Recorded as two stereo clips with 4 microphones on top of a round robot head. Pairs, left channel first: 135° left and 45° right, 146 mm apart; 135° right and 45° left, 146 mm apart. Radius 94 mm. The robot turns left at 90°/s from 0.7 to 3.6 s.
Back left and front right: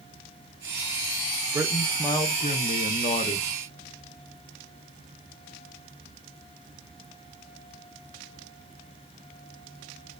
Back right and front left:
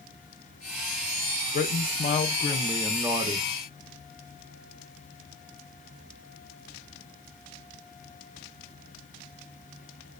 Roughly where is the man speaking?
Behind right.